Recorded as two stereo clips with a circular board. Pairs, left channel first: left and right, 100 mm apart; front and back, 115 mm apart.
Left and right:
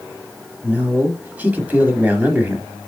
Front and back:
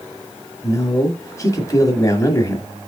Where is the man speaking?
30° right, 1.1 m.